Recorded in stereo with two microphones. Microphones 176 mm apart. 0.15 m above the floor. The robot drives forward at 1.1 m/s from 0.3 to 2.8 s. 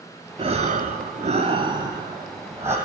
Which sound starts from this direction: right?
Breathing, at 0.4 s.